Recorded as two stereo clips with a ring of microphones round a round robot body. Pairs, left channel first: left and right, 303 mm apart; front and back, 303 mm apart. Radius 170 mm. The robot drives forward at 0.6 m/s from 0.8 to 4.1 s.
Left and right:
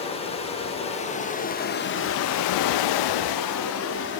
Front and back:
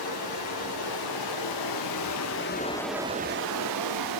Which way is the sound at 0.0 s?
20° left.